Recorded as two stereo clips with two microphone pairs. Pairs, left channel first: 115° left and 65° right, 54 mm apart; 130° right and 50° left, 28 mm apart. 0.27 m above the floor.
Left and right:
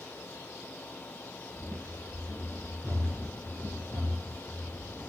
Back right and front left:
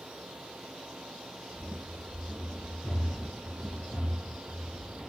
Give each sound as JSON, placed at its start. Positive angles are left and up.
{"t": 1.5, "sound": "running footsteps", "azimuth_deg": -140, "distance_m": 4.5}